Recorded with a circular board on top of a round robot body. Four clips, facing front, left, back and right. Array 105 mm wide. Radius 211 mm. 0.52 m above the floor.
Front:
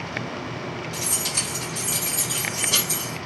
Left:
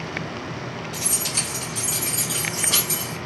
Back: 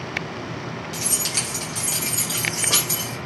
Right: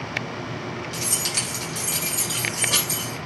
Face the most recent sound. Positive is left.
turn(degrees=180)